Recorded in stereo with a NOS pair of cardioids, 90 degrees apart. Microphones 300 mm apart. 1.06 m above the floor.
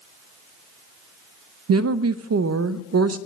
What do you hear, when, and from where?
1.7 s a woman speaking: 60° right, 0.7 m